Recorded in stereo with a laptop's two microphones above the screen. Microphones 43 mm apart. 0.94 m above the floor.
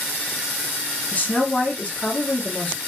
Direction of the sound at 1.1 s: 40° left (ahead or behind).